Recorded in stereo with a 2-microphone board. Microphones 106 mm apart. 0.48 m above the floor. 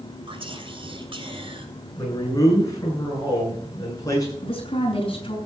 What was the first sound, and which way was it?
Whispering, 55° right (ahead or behind).